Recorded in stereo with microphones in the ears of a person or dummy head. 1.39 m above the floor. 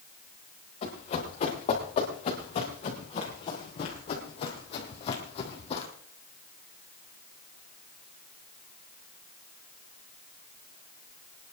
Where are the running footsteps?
45° left (ahead or behind), 7.5 m; by 5.9 s 40° left (ahead or behind), 3.5 m.